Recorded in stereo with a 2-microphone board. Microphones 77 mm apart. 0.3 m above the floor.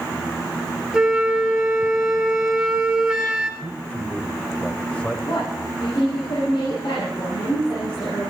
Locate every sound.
0.9 s a flute: 10° right (ahead or behind), 2 m
3.6 s a man speaking: 15° left (ahead or behind), 1.6 m
5.3 s a woman speaking: 80° left, 7.5 m